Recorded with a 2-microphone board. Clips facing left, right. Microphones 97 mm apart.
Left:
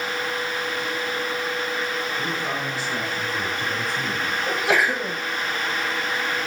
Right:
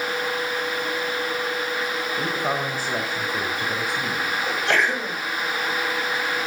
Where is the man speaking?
45° right (ahead or behind), 1.9 m; by 4.4 s 10° right (ahead or behind), 3 m.